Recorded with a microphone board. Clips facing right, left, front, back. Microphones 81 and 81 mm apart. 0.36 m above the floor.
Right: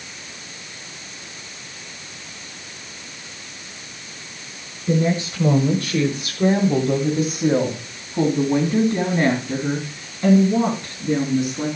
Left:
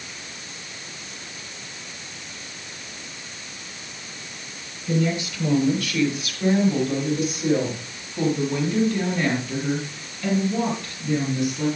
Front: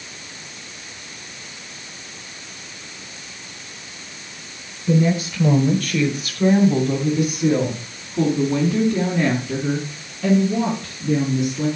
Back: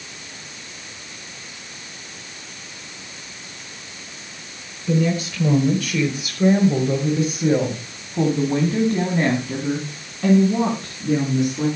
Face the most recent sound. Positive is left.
turn(degrees=-150)